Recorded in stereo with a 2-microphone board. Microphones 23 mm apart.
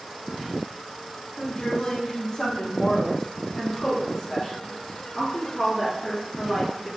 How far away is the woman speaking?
About 1.2 m.